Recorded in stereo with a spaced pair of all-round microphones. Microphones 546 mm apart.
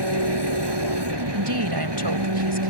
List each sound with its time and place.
0.0 s an engine running: 50° right (ahead or behind)
1.3 s a woman speaking: 45° right (ahead or behind)